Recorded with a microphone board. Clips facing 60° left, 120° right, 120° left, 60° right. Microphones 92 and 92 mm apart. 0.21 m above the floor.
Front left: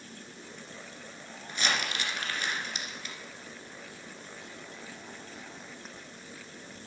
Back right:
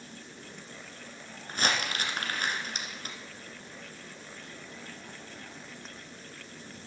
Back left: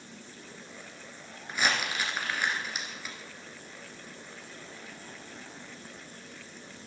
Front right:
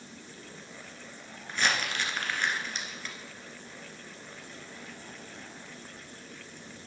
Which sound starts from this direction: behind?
Crumpling, at 1.5 s.